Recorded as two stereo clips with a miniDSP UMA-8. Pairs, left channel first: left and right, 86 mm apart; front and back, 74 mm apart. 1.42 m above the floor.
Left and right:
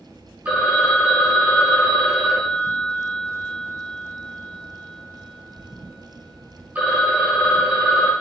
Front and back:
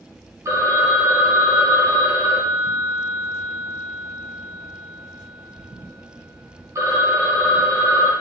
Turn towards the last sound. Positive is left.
turn(degrees=-150)